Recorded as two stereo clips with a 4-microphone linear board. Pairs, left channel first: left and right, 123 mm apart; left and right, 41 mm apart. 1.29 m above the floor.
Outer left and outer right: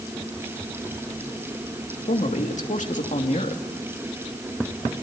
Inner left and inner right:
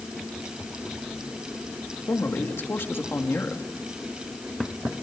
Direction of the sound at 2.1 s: 80° left.